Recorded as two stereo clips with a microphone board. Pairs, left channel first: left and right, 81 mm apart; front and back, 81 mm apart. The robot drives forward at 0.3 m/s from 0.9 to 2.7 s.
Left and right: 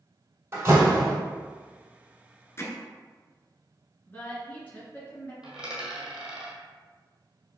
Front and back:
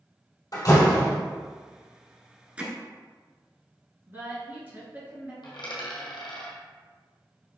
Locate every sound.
0.5 s a door slam: 30° right, 2.0 m; by 1.1 s 35° right, 1.9 m
2.6 s hammering: 115° left, 0.8 m; by 2.7 s 120° left, 0.8 m
4.1 s a woman speaking: 140° left, 1.9 m
5.4 s a dropped coin: 10° right, 1.4 m